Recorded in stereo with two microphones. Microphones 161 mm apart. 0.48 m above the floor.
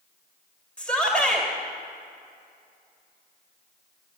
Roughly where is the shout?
Centre.